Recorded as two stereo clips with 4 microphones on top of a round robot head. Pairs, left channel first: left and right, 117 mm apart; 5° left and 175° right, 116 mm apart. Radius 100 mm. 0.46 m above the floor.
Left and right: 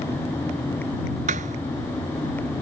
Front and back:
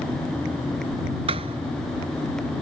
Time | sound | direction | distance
1.3 | a thud | 120° right | ?